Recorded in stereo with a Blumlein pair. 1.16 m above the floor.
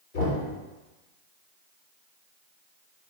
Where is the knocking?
55° left, 1.1 m.